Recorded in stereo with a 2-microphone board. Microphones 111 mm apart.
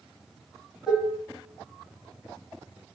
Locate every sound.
0.9 s dishes clattering: 5° right (ahead or behind), 2.5 m